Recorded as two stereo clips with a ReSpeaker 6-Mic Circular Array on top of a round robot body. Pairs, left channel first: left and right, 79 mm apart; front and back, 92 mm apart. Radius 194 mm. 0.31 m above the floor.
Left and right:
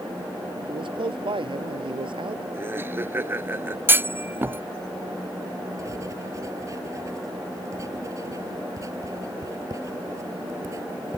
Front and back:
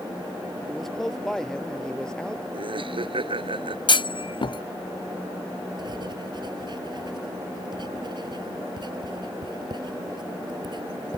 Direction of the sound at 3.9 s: 25° right.